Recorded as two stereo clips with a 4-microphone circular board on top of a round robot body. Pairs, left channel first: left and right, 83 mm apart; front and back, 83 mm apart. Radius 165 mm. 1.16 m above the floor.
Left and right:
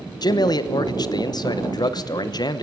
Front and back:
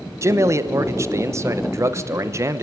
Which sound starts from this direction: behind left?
A man speaking, at 0.2 s.